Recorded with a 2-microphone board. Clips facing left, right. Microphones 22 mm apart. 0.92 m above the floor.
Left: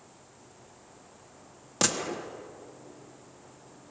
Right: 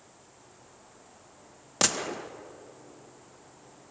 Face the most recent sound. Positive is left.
turn(degrees=-15)  # may be behind; listen again after turning